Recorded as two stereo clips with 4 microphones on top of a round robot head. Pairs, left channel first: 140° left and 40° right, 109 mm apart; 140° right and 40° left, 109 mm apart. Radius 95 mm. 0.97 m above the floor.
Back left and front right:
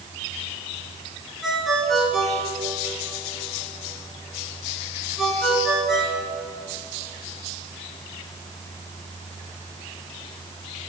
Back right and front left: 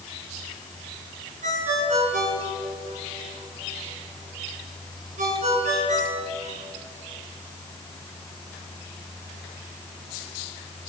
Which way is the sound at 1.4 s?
50° left.